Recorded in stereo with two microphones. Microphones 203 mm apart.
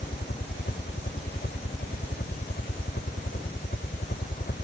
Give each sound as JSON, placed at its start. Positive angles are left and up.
{"t": 0.0, "sound": "a helicopter", "side_deg": 55}